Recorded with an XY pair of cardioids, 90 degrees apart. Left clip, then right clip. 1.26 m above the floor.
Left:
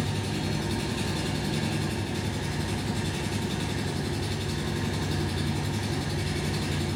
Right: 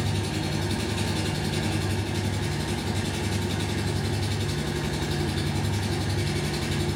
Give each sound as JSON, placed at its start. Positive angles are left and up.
{"t": 0.0, "sound": "an engine running", "azimuth_deg": -65, "distance_m": 5.0}